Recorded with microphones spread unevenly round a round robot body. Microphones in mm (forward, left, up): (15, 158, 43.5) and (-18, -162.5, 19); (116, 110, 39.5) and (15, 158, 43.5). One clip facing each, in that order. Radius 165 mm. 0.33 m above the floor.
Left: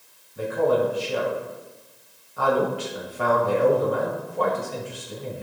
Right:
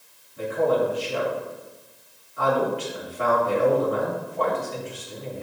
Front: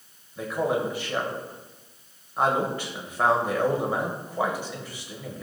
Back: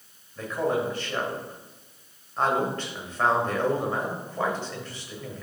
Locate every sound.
0.4 s a man speaking: 50° left, 1.8 m